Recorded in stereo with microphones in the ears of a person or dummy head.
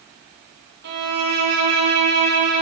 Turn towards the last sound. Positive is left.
turn(degrees=-60)  # may be behind; listen again after turning